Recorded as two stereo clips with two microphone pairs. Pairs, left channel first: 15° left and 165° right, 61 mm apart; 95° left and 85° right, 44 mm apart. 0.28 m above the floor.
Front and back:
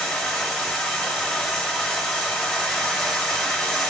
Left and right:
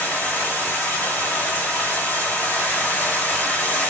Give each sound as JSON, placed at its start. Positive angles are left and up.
{"t": 0.0, "sound": "running water", "azimuth_deg": 90, "distance_m": 1.3}